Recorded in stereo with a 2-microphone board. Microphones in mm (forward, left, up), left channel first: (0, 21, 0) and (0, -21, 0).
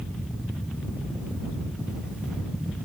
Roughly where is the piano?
No piano in this recording.